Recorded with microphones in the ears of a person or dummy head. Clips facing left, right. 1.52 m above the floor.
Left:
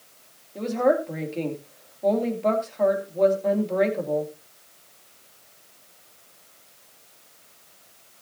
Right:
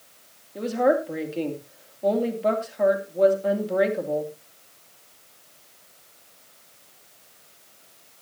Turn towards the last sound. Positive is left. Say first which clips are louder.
# even
turn(degrees=-10)  # may be behind; listen again after turning